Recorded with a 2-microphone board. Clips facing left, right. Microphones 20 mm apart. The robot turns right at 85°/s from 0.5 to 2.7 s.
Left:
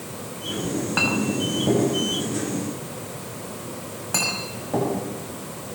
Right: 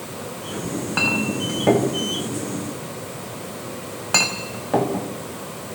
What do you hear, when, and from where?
0.6 s a clink: 35° left (ahead or behind), 4 m; by 5.1 s 40° right (ahead or behind), 4 m